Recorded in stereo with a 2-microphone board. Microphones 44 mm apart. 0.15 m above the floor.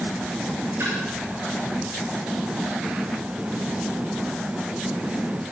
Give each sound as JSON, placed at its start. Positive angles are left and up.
{"t": 0.8, "sound": "a splash", "side_deg": -55, "distance_m": 6.5}